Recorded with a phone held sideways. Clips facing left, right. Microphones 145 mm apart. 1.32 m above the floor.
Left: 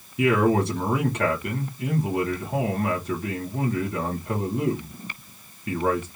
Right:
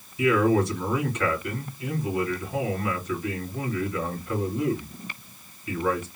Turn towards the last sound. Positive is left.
turn(degrees=65)  # may be behind; listen again after turning